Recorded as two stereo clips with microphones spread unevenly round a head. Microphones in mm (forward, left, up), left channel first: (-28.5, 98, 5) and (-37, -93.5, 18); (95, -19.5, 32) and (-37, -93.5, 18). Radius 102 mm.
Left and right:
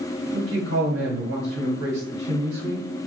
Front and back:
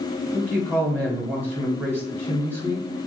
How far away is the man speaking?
About 1.3 m.